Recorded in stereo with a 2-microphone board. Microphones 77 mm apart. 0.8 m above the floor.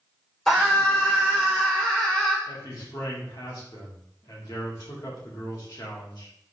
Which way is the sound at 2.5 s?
65° left (ahead or behind).